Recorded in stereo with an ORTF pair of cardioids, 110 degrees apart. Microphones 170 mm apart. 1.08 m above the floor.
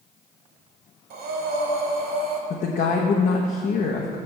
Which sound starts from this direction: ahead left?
A woman speaking, at 2.5 s.